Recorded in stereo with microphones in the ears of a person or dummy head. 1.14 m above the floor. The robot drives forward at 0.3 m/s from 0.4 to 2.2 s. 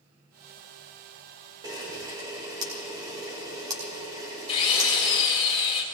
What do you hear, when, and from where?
1.6 s a camera shutter: 20° right (ahead or behind), 1.8 m
4.5 s a drill: 30° left (ahead or behind), 3.5 m